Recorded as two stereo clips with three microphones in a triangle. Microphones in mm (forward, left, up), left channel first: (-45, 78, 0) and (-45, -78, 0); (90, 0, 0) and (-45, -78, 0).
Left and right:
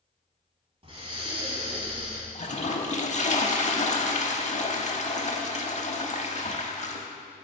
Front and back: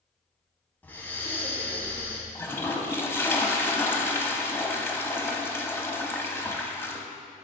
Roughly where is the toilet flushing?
Left.